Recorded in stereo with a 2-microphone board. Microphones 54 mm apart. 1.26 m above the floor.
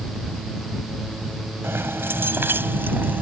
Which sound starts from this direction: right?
Keys jangling, at 1.6 s.